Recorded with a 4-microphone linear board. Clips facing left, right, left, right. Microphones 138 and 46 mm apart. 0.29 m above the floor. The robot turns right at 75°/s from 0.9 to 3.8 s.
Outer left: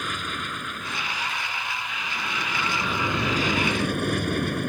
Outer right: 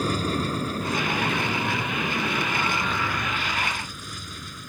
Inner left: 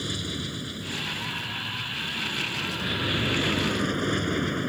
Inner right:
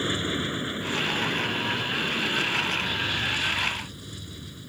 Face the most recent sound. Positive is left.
turn(degrees=75)